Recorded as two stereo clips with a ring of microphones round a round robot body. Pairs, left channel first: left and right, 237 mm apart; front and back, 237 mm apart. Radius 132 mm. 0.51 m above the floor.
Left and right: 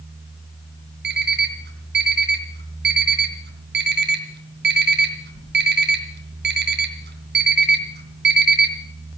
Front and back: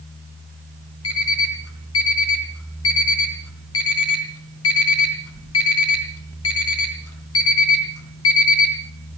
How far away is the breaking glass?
No breaking glass in this recording.